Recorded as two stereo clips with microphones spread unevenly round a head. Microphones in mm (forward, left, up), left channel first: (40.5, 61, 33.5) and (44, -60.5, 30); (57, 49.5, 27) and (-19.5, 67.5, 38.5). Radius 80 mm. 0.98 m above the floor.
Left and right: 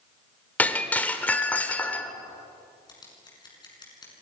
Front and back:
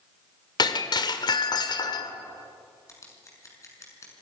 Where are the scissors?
35° left, 7 m.